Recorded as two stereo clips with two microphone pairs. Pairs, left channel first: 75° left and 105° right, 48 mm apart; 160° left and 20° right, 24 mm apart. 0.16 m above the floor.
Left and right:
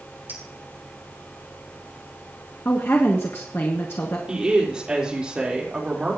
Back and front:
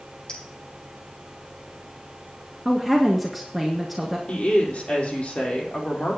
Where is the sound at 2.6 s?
65° left, 1.7 m.